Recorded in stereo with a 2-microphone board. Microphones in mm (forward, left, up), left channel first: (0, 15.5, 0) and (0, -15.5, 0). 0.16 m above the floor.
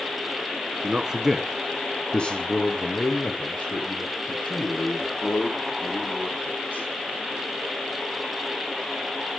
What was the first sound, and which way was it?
A man speaking, 30° right (ahead or behind).